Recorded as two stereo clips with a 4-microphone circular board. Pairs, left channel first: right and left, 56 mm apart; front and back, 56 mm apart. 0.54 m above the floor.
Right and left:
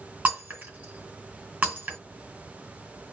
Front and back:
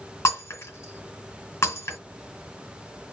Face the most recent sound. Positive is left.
turn(degrees=35)